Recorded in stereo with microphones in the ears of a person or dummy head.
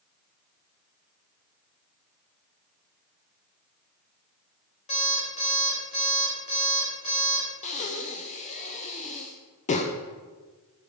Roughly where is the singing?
I don't hear singing.